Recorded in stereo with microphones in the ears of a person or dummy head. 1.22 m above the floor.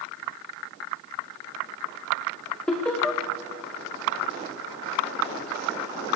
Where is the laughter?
10° left (ahead or behind), 0.6 m.